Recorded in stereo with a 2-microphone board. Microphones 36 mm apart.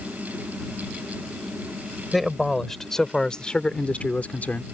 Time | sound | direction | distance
2.1 | a man speaking | centre (ahead or behind) | ?